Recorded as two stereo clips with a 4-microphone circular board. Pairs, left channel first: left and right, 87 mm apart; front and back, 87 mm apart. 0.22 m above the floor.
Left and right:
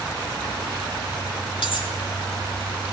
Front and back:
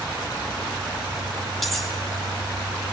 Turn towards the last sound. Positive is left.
turn(degrees=90)